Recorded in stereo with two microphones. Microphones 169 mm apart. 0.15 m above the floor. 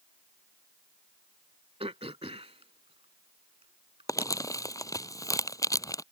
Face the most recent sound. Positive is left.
turn(degrees=20)  # may be behind; listen again after turning